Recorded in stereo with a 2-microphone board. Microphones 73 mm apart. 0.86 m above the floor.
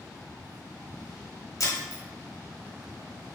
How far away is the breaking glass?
About 1.3 m.